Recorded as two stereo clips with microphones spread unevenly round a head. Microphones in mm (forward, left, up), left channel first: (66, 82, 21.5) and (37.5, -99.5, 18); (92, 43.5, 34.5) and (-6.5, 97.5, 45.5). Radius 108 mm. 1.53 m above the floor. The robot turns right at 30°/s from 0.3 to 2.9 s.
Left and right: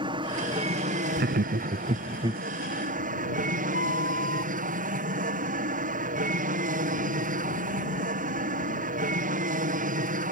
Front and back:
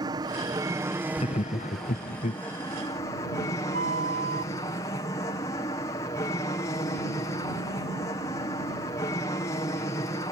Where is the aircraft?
160° right; by 10.3 s 80° right.